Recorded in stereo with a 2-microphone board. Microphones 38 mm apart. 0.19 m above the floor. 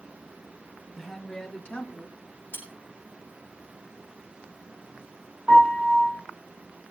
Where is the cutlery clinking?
65° left (ahead or behind), 5.5 m.